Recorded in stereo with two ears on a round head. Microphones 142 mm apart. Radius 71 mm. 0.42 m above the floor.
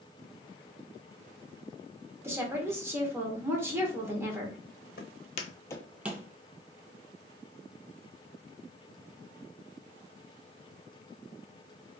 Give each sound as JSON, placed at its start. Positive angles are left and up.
{"t": 2.2, "sound": "a woman speaking", "side_deg": -15, "distance_m": 0.8}
{"t": 5.0, "sound": "footsteps", "side_deg": 65, "distance_m": 0.8}